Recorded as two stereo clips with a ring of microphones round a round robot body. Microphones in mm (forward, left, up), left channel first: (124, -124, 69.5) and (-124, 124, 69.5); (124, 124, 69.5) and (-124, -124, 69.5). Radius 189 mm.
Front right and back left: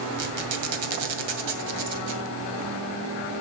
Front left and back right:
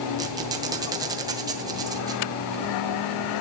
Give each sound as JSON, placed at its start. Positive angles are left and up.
{"t": 0.2, "sound": "a squeak", "azimuth_deg": 145, "distance_m": 2.5}